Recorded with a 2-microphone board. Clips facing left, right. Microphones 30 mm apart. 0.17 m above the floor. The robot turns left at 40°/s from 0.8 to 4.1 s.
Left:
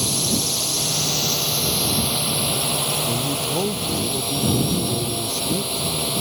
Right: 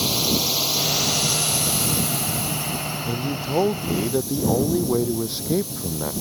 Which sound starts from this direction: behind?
A drone, at 0.0 s.